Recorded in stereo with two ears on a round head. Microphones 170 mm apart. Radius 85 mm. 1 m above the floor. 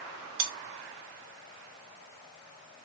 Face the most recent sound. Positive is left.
turn(degrees=-70)  # may be behind; listen again after turning